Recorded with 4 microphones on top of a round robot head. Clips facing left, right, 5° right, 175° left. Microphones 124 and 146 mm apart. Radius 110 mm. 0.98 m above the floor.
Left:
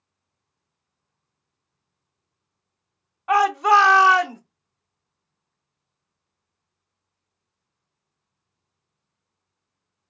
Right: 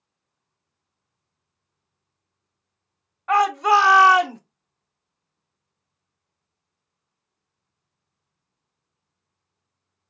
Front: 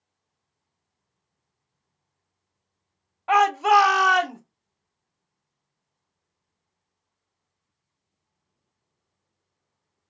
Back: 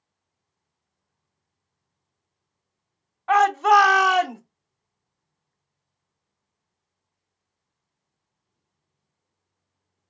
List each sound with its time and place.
3.3 s a shout: 35° left, 0.8 m; by 4.4 s 120° right, 0.8 m